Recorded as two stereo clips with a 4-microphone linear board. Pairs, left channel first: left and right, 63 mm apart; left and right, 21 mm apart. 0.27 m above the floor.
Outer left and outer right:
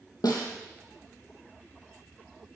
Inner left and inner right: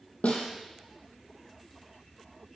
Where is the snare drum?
85° left, 2.5 m.